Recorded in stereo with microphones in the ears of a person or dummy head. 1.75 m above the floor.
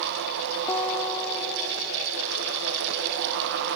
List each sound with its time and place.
0.7 s a guitar: 15° left (ahead or behind), 1.6 m